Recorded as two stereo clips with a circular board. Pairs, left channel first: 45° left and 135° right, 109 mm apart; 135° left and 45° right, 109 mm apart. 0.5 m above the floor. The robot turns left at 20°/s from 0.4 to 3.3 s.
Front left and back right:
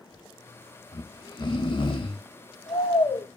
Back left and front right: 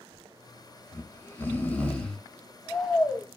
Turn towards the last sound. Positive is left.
turn(degrees=30)